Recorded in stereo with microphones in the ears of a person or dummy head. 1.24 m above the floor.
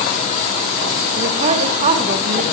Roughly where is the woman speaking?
Right.